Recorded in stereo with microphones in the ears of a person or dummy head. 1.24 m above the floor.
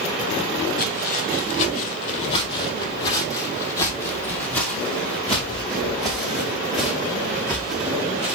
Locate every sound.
0.8 s footsteps: 45° left (ahead or behind), 2 m; by 8.3 s 10° right (ahead or behind), 4.5 m